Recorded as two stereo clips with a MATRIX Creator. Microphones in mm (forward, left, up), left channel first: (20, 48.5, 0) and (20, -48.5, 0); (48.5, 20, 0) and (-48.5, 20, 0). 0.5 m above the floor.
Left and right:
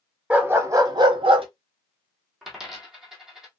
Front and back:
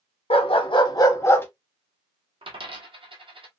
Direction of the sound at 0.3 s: 10° right.